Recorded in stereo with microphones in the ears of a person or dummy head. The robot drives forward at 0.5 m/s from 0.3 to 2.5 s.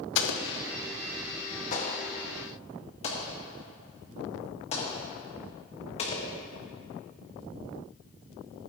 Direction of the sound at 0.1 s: 65° left (ahead or behind).